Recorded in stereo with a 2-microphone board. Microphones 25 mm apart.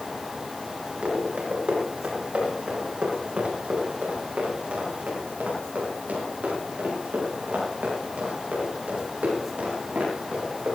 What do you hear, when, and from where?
1.0 s running footsteps: 50° right (ahead or behind), 10 m; by 10.8 s 85° right, 12.5 m